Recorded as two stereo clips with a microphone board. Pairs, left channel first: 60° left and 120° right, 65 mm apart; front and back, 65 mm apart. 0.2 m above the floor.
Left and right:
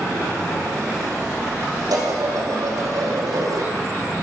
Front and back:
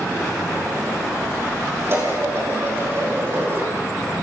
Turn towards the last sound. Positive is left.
turn(degrees=-125)